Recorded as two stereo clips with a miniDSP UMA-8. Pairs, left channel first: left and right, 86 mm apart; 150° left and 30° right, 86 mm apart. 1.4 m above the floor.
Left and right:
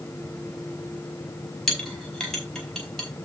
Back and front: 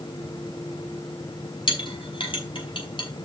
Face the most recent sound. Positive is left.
turn(degrees=175)